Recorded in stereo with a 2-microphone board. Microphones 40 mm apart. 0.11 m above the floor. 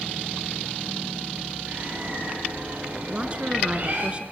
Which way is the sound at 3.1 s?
30° right (ahead or behind).